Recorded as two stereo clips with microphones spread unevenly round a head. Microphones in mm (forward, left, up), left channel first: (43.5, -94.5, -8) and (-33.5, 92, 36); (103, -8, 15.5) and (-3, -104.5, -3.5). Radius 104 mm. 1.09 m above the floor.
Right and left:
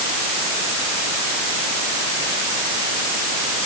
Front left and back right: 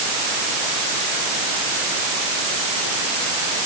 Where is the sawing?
I don't hear sawing.